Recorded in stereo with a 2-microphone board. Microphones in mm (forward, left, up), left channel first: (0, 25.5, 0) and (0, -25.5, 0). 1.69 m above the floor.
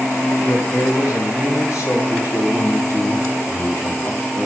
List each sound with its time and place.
0.4 s a man speaking: 85° left, 3.5 m; by 2.0 s 75° left (ahead or behind), 4 m
2.1 s a man speaking: 70° left (ahead or behind), 3 m